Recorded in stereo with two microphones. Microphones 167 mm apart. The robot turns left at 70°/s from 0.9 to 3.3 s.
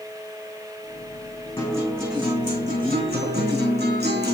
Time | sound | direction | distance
1.6 | a guitar | 35° left | 4.5 m